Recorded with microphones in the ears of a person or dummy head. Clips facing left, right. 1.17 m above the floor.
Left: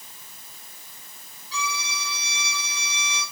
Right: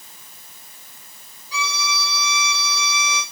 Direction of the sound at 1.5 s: 15° right (ahead or behind).